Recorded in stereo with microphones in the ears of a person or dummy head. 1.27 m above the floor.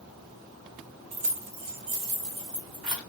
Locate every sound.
1.1 s keys jangling: 35° right (ahead or behind), 0.7 m; by 3.0 s 30° right (ahead or behind), 1.0 m